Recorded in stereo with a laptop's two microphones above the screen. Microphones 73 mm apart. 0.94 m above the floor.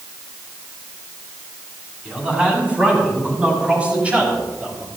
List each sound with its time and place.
2.0 s a man speaking: 20° right (ahead or behind), 6 m